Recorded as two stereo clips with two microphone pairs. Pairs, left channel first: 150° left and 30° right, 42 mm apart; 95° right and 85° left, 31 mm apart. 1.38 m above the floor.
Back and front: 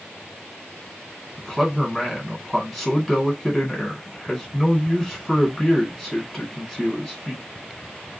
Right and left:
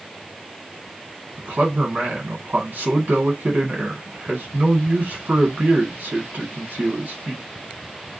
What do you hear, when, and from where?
1.4 s a man speaking: 60° left, 1.3 m